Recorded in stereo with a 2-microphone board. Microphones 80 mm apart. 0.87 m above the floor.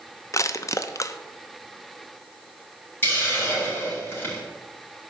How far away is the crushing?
About 0.6 m.